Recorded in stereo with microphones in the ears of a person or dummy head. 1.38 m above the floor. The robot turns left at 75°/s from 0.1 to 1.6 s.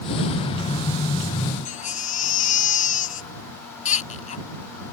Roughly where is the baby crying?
Left.